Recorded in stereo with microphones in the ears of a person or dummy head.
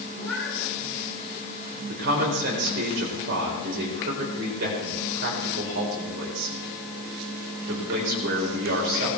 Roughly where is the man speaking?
Right.